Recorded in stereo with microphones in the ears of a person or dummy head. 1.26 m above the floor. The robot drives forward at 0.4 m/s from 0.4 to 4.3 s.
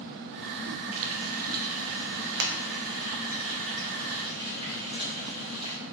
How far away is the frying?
About 0.8 m.